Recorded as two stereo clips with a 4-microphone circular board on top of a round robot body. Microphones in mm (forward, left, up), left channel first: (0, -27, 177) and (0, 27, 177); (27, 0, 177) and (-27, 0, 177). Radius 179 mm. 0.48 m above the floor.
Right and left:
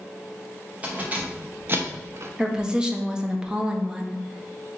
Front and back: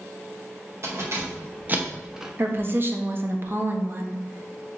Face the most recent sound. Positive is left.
turn(degrees=160)